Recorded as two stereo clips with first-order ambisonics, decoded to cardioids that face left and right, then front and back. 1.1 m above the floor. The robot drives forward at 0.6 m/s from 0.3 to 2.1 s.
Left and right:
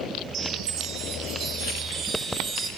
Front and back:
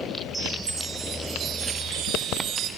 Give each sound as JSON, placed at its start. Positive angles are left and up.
{"t": 0.3, "sound": "a chime", "azimuth_deg": -105, "distance_m": 1.2}